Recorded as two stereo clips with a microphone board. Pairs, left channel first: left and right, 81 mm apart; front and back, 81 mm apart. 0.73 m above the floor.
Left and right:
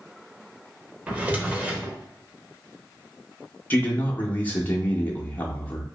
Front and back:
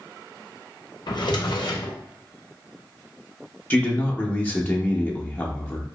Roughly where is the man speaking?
Ahead left.